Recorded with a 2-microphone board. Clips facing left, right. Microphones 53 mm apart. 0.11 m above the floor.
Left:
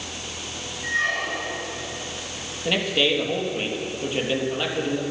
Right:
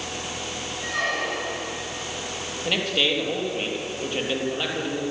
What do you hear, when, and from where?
0.8 s a squeak: 75° right (ahead or behind), 5 m
2.6 s a man speaking: 5° left (ahead or behind), 3.5 m